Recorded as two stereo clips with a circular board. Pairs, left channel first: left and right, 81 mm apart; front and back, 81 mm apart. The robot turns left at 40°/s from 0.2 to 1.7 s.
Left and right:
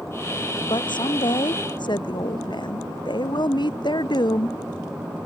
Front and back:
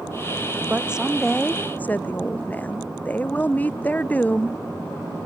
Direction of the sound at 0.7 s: 110° left.